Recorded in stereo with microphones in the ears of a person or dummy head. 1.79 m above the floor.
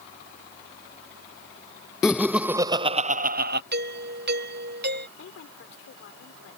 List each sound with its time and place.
2.0 s laughter: 15° left (ahead or behind); by 3.6 s 55° right (ahead or behind)
3.7 s a doorbell: 55° right (ahead or behind)
5.2 s a woman speaking: 75° left (ahead or behind)